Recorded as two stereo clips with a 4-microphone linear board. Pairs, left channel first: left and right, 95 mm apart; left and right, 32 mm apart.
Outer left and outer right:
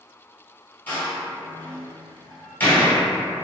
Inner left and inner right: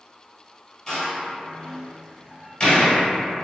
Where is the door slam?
20° left (ahead or behind), 1.4 m.